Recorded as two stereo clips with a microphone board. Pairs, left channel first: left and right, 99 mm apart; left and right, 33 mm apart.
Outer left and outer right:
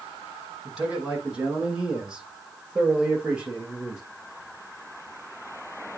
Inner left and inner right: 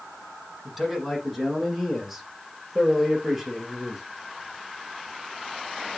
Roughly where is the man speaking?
Centre.